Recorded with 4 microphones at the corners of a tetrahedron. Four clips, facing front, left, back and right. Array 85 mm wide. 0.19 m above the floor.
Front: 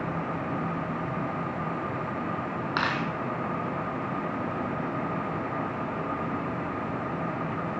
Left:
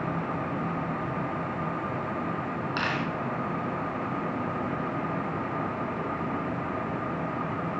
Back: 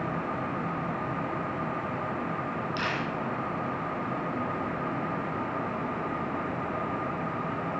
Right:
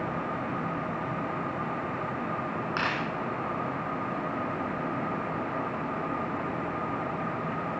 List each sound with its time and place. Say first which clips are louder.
2.8 s a dropped coin: left 1 dB, front 5 dB; 5° right, 2.5 m